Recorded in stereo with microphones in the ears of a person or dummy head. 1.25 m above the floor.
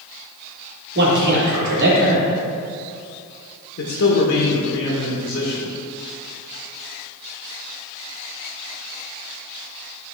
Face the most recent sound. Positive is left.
turn(degrees=60)  # may be behind; listen again after turning